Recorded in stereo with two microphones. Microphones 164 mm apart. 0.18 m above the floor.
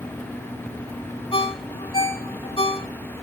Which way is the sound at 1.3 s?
35° left (ahead or behind).